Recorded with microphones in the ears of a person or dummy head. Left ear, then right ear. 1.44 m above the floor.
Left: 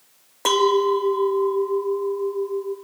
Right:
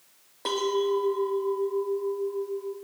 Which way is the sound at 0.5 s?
35° left (ahead or behind).